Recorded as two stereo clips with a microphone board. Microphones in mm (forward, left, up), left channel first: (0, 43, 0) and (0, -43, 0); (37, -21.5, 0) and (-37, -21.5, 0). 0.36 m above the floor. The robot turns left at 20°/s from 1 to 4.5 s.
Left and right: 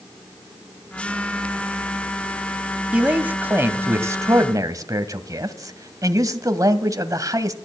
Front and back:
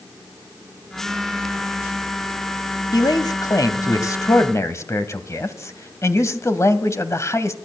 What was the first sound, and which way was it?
A man speaking, 15° right.